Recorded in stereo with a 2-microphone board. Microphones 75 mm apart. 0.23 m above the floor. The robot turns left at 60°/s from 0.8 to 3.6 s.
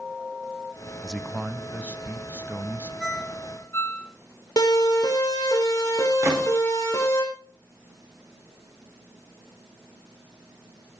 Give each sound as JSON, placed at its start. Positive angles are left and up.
{"t": 1.0, "sound": "a man speaking", "side_deg": 0, "distance_m": 1.0}
{"t": 3.0, "sound": "a ringtone", "side_deg": 0, "distance_m": 2.5}
{"t": 4.6, "sound": "a siren", "side_deg": 55, "distance_m": 5.0}
{"t": 6.2, "sound": "a gunshot", "side_deg": -35, "distance_m": 6.5}